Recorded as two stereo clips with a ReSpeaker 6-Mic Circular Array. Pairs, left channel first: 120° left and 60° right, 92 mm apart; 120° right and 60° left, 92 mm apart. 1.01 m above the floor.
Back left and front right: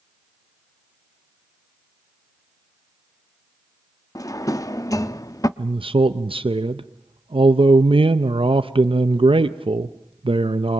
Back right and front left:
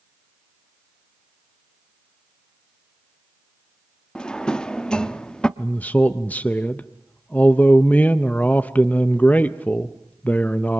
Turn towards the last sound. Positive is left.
turn(degrees=-45)